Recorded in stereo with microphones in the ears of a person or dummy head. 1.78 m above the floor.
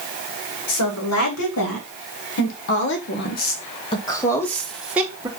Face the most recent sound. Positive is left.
turn(degrees=-15)  # may be behind; listen again after turning